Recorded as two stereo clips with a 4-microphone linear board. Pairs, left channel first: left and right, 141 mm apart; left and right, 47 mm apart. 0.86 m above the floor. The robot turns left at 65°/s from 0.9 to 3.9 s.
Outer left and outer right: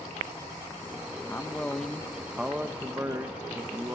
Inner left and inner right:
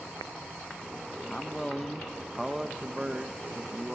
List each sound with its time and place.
1.3 s a man speaking: 15° left (ahead or behind), 0.8 m; by 4.0 s 20° right (ahead or behind), 0.8 m